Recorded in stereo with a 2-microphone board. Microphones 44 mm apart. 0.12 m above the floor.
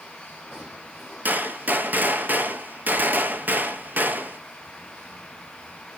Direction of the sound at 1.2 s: 45° right (ahead or behind).